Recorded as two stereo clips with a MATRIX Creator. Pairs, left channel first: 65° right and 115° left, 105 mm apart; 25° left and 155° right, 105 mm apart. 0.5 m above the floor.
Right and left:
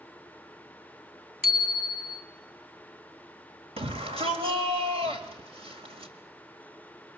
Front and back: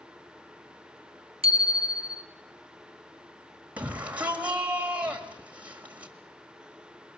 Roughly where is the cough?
No cough in this recording.